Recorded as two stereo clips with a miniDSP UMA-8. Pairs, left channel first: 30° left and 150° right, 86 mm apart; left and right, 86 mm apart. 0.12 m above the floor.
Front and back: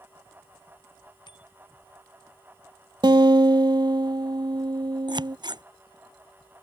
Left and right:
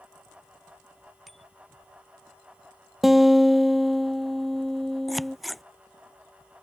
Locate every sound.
1.3 s a bicycle bell: straight ahead
3.0 s a guitar: straight behind
5.1 s scissors: straight behind